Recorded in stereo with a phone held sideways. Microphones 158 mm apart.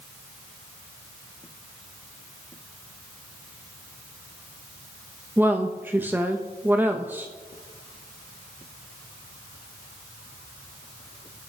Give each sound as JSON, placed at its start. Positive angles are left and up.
{"t": 5.4, "sound": "a woman speaking", "side_deg": -10, "distance_m": 0.6}